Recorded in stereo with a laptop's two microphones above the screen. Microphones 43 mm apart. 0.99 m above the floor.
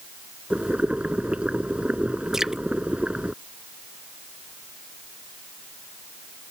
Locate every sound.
0.5 s boiling: 30° right (ahead or behind)
2.3 s dripping: 10° right (ahead or behind)